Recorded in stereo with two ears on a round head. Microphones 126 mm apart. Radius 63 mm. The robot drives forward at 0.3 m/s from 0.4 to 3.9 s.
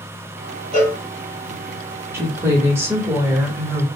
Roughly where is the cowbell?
Centre.